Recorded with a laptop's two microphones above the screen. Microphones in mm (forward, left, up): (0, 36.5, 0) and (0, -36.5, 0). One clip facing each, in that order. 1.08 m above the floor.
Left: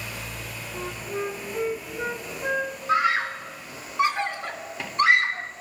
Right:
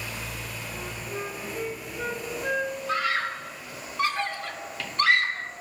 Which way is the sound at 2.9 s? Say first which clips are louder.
Left 6 dB; 20° left (ahead or behind).